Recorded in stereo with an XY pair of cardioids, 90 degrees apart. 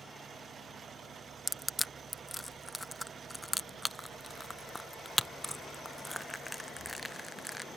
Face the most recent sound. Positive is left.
turn(degrees=5)